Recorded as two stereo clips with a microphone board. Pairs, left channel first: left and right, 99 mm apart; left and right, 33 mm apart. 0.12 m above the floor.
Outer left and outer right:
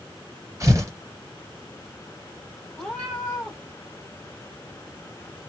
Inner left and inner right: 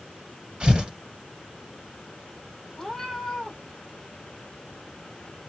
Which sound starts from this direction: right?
Tearing paper, at 0.6 s.